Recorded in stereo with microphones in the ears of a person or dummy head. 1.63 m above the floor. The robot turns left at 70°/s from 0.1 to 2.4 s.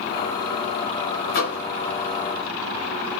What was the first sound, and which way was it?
A microwave, 50° left (ahead or behind).